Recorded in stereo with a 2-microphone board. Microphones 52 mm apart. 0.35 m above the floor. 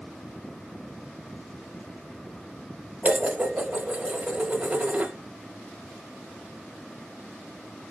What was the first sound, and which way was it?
Dishes clattering, 30° right (ahead or behind).